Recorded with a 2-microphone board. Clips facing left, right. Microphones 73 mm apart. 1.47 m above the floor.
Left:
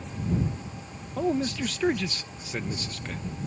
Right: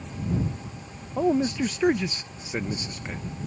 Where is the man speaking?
15° right (ahead or behind).